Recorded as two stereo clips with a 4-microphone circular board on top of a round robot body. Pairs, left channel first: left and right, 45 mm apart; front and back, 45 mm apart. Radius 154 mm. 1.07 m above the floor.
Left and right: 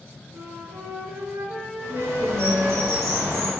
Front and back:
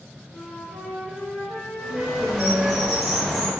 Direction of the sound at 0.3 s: 75° right.